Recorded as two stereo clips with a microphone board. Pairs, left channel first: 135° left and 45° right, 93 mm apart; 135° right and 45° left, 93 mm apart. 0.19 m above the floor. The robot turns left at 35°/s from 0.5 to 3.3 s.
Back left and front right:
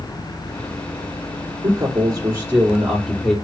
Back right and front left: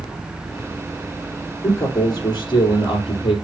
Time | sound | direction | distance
1.6 | a man speaking | 75° right | 3.5 m